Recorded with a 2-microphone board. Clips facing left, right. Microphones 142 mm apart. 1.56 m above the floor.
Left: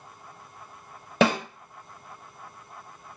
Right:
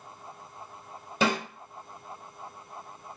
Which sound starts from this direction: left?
A snare drum, at 1.2 s.